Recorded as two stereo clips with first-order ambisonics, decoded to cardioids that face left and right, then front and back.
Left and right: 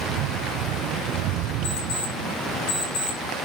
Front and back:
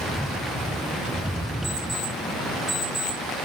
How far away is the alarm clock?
About 5 m.